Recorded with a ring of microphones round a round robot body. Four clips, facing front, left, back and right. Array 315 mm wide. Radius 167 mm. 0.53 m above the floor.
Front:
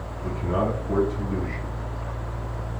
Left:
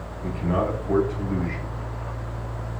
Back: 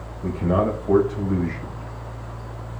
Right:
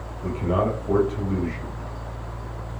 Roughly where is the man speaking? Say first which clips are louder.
Right 1 dB, back 4 dB; behind.